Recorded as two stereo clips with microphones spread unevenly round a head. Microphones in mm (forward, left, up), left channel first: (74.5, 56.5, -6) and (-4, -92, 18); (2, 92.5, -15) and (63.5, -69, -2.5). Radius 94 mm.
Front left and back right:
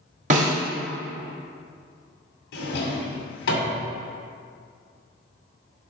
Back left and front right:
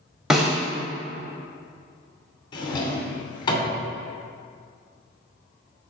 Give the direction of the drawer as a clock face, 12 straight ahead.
10 o'clock.